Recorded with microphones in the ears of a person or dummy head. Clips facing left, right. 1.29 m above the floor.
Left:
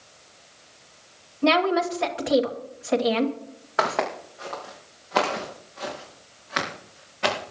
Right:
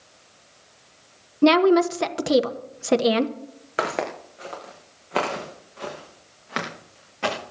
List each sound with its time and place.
1.4 s a woman speaking: 50° right (ahead or behind), 1.2 m
3.8 s footsteps: 20° right (ahead or behind), 4 m; by 7.4 s 50° right (ahead or behind), 6 m